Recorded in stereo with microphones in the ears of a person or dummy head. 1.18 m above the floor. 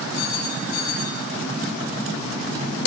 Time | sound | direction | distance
0.1 | a phone ringing | 55° left (ahead or behind) | 8.5 m